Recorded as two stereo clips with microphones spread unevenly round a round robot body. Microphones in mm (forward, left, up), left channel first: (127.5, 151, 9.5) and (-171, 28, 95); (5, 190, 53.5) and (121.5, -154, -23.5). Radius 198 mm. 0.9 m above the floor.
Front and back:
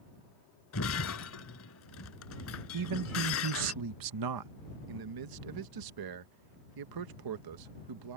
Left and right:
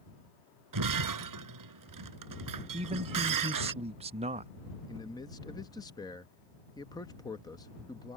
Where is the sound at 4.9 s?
165° right.